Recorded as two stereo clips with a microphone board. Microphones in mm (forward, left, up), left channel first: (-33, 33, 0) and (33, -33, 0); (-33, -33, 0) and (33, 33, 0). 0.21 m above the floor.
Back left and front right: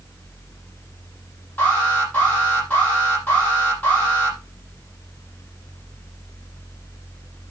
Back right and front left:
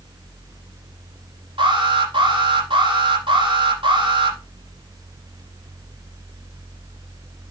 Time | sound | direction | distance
1.6 | an alarm | 65° left | 9 m